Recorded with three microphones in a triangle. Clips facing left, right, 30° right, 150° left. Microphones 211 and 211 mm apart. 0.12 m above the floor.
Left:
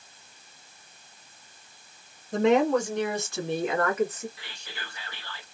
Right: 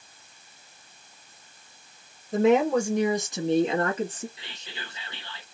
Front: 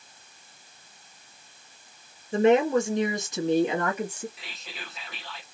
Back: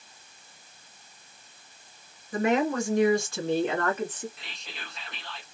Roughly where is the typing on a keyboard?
No typing on a keyboard in this recording.